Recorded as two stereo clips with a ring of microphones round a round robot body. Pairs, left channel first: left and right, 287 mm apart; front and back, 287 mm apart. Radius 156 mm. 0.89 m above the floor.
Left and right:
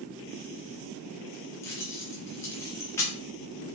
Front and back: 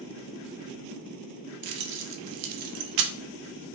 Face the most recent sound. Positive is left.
turn(degrees=170)